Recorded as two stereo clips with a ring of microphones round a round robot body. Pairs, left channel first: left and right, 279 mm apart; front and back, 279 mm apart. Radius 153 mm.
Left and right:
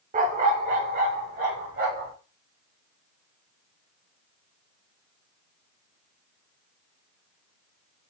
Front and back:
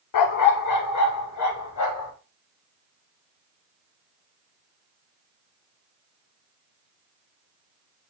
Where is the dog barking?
20° right, 0.8 m; by 2.1 s 25° right, 2.5 m.